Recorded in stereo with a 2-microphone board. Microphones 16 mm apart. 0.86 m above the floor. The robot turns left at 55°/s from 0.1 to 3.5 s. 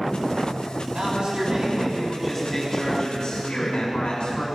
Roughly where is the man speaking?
Behind right.